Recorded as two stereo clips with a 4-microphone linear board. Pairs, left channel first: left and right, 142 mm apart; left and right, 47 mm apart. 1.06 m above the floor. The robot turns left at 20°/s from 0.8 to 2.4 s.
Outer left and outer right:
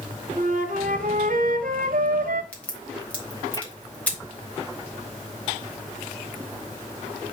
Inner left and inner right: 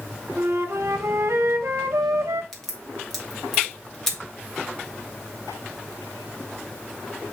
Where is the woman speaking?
No woman speaking in this recording.